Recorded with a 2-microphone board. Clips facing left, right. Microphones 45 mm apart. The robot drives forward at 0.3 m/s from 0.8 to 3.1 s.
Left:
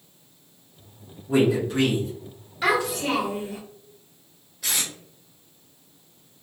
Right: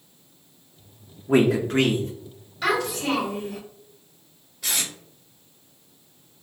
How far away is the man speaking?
About 0.5 m.